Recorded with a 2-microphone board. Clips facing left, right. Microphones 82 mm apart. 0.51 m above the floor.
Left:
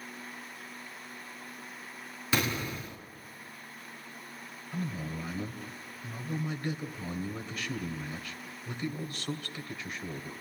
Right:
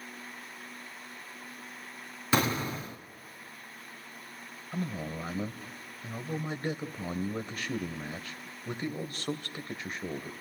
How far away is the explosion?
About 1.3 m.